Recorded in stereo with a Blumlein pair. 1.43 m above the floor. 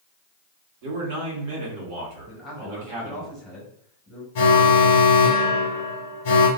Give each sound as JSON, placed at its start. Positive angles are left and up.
{"t": 0.8, "sound": "a man speaking", "azimuth_deg": -50, "distance_m": 1.8}
{"t": 2.3, "sound": "a man speaking", "azimuth_deg": 15, "distance_m": 2.0}
{"t": 4.3, "sound": "an alarm", "azimuth_deg": 55, "distance_m": 0.8}